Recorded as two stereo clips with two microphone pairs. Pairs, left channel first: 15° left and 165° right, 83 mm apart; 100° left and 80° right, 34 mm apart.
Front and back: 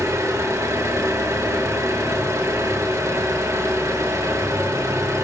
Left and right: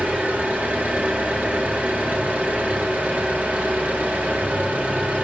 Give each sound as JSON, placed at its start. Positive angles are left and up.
{"t": 0.0, "sound": "an engine running", "azimuth_deg": -115, "distance_m": 1.6}